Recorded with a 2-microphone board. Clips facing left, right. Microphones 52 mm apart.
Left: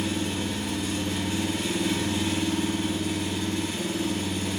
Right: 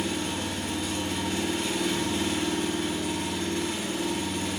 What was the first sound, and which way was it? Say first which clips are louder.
An engine running: left 1 dB; 60° right (ahead or behind).